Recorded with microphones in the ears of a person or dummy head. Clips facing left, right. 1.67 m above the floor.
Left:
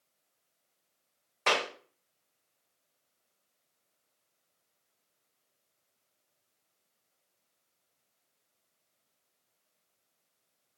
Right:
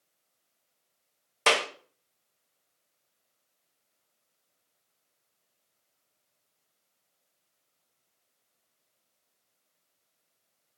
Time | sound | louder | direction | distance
1.5 | a clap | right 4 dB | 50° right (ahead or behind) | 0.5 m